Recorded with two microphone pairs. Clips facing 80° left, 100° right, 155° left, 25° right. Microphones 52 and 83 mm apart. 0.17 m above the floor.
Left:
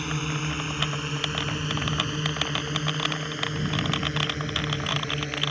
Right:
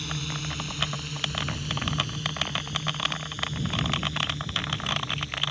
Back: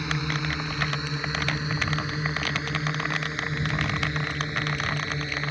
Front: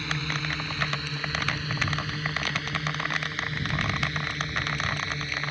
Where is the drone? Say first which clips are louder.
Left 4 dB, back 3 dB; 95° left.